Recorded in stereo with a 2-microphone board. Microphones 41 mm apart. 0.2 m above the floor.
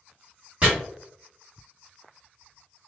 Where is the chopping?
35° right (ahead or behind), 1.9 m.